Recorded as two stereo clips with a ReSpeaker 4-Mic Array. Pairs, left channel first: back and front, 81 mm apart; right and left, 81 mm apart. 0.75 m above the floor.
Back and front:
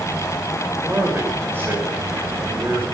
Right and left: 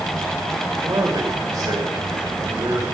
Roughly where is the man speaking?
Ahead left.